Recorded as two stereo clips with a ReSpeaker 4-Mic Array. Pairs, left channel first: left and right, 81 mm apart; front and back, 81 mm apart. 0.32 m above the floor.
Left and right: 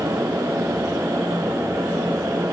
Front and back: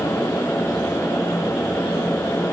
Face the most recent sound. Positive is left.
No sound to turn to.